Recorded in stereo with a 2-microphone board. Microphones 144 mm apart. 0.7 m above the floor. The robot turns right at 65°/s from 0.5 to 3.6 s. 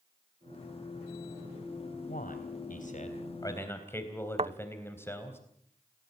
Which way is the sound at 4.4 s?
50° right (ahead or behind).